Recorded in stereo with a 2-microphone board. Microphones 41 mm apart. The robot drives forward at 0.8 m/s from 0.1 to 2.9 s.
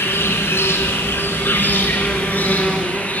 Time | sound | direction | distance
0.0 | an insect | 80° left | 1.7 m